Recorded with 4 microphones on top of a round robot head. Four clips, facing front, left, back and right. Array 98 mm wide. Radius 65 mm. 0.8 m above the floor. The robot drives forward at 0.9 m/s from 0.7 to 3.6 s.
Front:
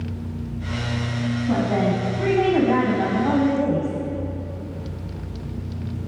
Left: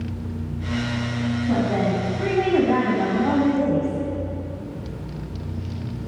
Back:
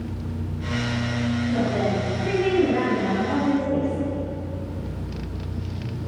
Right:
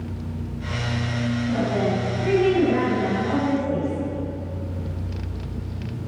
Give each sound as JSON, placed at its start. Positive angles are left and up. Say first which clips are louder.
{"t": 1.5, "sound": "a woman speaking", "louder": "left 2 dB, front 4 dB", "azimuth_deg": 30, "distance_m": 7.0}